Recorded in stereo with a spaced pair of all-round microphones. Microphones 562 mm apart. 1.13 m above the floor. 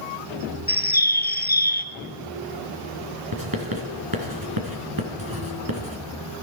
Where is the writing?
40° right (ahead or behind), 3 m.